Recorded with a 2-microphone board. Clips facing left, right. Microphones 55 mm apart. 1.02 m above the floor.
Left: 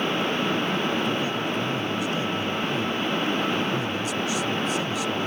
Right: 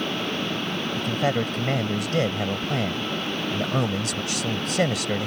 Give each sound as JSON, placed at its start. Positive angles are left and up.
{"t": 1.0, "sound": "a man speaking", "side_deg": -80}